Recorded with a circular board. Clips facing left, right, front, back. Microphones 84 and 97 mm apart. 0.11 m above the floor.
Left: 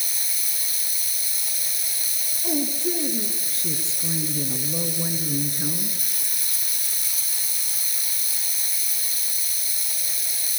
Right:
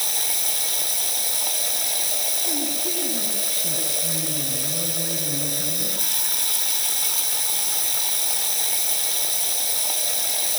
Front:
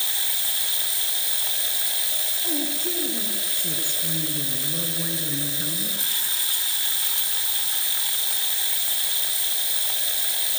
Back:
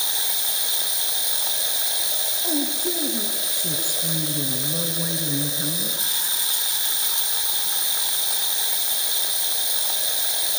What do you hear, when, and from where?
0.0 s running water: 110° right, 0.9 m
2.4 s a woman speaking: 120° left, 1.6 m